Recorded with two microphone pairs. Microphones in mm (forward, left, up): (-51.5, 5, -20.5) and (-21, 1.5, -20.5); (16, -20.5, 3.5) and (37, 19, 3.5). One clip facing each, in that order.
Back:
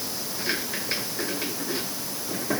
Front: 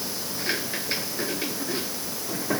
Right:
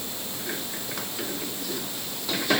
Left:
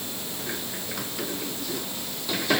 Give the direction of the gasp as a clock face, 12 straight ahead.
I don't hear a gasp.